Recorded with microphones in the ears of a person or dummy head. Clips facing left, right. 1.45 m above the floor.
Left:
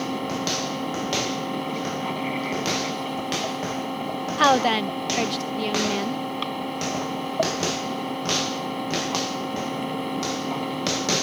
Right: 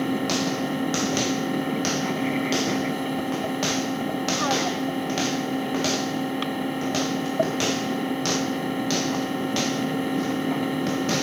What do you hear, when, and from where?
0.0 s a fan: 20° right (ahead or behind)
4.4 s a woman speaking: 85° left